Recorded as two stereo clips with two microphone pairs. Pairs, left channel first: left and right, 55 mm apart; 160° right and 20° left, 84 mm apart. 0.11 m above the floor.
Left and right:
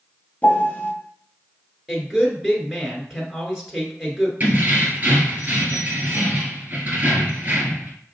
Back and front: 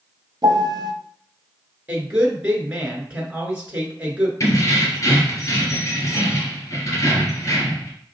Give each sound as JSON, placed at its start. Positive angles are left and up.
{"t": 0.4, "sound": "a piano", "azimuth_deg": 25, "distance_m": 0.7}
{"t": 1.9, "sound": "a woman speaking", "azimuth_deg": -25, "distance_m": 1.3}
{"t": 4.4, "sound": "keys jangling", "azimuth_deg": -130, "distance_m": 1.5}